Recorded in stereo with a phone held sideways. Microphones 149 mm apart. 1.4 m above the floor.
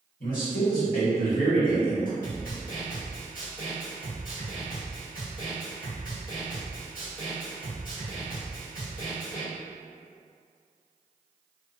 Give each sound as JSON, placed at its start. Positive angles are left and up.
{"t": 0.2, "sound": "a man speaking", "side_deg": 65, "distance_m": 1.6}
{"t": 2.2, "sound": "a snare drum", "side_deg": 65, "distance_m": 1.3}